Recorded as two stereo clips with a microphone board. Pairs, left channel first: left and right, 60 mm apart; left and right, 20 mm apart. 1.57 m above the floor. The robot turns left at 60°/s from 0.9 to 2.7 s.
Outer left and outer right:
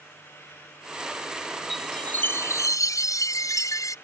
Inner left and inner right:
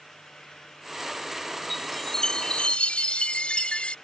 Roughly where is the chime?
Behind.